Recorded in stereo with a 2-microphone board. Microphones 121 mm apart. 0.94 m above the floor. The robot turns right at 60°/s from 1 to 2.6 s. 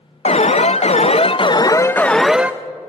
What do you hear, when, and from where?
0.2 s an alarm: 100° left, 0.5 m; by 2.5 s 165° right, 0.5 m